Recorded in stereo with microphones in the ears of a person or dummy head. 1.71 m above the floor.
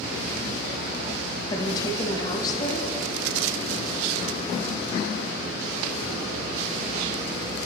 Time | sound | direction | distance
1.5 | a woman speaking | 25° left (ahead or behind) | 0.6 m